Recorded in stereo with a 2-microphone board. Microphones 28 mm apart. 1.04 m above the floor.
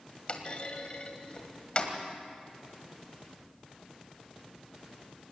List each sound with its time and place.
0.3 s a clunk: 40° left (ahead or behind), 1.9 m